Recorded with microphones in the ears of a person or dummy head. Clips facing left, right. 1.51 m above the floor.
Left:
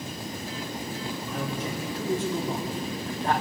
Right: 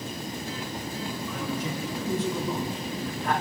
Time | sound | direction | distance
1.3 | a man speaking | 40° left (ahead or behind) | 4.5 m